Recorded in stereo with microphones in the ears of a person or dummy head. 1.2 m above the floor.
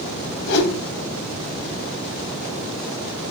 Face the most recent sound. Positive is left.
turn(degrees=60)  # may be behind; listen again after turning